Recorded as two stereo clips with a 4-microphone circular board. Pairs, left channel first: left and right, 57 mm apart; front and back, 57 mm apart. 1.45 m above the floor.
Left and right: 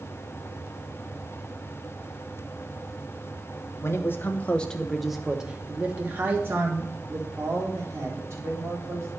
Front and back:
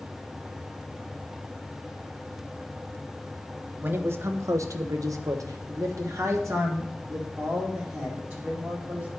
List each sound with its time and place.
3.8 s a man speaking: 125° left, 0.9 m; by 9.1 s 130° right, 3 m